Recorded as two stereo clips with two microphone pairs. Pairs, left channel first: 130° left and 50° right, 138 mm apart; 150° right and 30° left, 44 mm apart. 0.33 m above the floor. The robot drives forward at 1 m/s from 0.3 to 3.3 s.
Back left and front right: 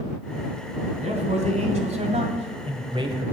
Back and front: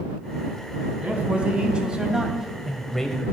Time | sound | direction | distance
1.0 | a man speaking | 25° right | 3 m